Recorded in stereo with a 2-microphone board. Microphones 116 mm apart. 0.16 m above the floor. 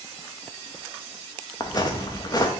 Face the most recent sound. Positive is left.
turn(degrees=35)  # may be behind; listen again after turning